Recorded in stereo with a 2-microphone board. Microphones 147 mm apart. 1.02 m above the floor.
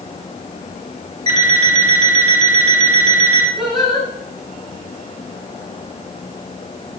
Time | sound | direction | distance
1.3 | an alarm clock | 45° right (ahead or behind) | 3 m
3.6 | singing | centre (ahead or behind) | 6 m